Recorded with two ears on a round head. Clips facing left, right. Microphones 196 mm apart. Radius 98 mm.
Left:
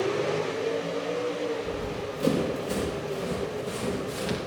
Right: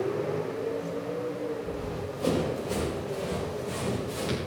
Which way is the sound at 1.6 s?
30° left (ahead or behind).